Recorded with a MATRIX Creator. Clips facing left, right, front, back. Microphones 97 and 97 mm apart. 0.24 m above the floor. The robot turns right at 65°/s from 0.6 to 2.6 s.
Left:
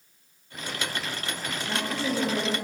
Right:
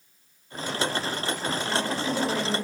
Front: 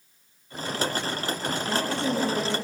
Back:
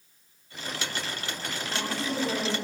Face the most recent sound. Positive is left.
turn(degrees=55)